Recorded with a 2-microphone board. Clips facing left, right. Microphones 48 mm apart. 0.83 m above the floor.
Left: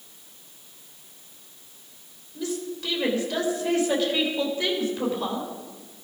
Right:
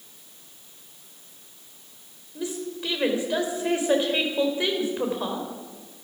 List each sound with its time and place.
2.4 s a woman speaking: 20° right (ahead or behind), 4 m